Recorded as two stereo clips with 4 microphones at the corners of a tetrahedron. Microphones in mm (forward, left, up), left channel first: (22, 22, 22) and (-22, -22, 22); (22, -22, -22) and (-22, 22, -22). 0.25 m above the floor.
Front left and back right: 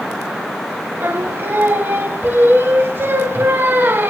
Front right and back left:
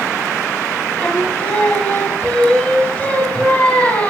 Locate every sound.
1.0 s singing: 105° right, 1.0 m